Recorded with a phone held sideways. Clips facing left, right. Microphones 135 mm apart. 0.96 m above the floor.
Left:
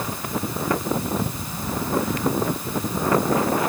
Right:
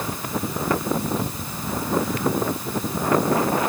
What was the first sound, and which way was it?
Only background noise.